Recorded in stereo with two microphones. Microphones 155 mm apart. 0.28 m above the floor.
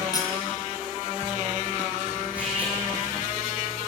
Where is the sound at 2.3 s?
10° right (ahead or behind), 7.5 m.